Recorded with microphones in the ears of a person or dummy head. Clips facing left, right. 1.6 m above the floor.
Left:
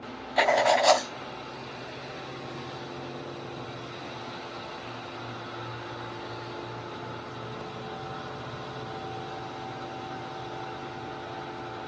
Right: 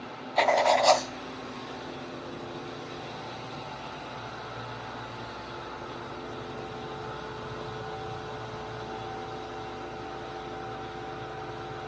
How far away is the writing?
About 0.5 m.